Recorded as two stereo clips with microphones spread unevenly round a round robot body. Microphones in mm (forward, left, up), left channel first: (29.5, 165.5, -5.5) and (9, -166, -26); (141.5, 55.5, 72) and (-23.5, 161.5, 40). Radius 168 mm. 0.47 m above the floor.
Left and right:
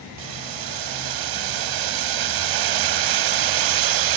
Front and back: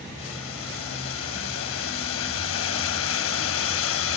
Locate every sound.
0.2 s boiling: 65° right